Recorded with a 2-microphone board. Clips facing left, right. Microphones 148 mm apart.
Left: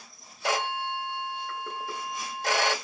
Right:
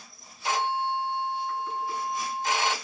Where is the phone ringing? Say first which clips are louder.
Right 2 dB; 75° left (ahead or behind), 1.5 m.